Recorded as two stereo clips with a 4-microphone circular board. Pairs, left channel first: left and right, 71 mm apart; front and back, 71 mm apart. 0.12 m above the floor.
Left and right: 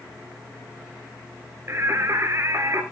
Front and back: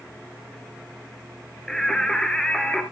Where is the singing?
75° right, 1.5 m.